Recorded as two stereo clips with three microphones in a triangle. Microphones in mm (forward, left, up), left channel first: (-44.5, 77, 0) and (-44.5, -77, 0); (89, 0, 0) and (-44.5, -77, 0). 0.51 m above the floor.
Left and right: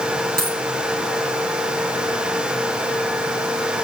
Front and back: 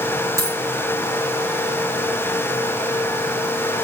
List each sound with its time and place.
0.4 s a dropped coin: 80° right, 4 m